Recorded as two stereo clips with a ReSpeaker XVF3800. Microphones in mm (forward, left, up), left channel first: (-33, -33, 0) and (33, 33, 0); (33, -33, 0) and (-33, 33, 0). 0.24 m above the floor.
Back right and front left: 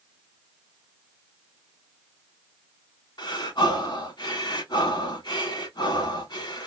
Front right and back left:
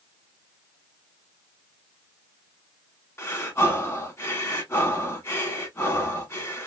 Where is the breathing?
105° right, 0.9 m.